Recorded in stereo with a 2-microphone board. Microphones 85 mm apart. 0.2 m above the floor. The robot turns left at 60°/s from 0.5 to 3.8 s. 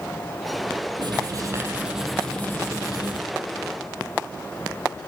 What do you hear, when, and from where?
1.0 s writing: 115° right, 4 m; by 3.2 s 115° left, 4 m